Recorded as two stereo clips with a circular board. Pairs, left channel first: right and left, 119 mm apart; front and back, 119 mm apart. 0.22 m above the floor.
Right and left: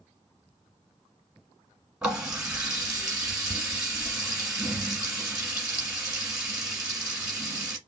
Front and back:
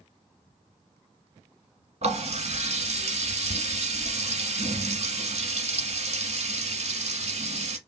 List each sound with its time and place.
2.0 s a running tap: 175° left, 1.3 m